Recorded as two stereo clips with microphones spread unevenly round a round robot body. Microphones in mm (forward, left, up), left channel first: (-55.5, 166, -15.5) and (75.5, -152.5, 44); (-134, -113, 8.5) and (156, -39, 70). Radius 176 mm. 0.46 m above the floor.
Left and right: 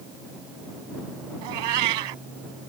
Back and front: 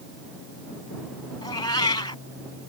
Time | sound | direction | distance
1.4 | a cat meowing | 90° right | ?